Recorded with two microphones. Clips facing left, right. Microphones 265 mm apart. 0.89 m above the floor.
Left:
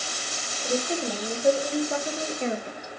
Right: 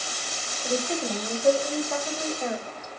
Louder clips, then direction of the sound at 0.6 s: Even; centre (ahead or behind).